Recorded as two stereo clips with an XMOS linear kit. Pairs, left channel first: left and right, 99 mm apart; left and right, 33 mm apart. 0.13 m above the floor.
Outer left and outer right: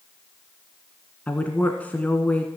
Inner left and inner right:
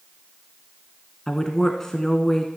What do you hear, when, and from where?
1.3 s a woman speaking: 15° left (ahead or behind), 1.2 m